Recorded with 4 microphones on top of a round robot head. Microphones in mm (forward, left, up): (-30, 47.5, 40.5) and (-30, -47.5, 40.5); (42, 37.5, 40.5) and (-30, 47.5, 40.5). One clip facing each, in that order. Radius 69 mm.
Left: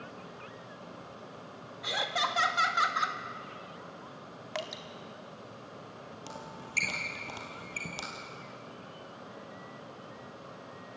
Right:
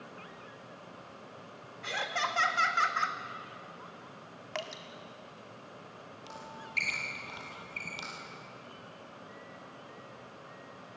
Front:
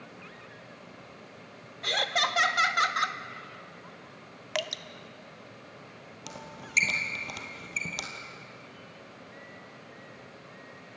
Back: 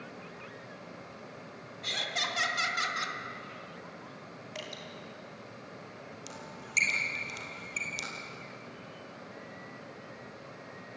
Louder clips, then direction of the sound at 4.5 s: Left 1 dB, front 10 dB; 5° left.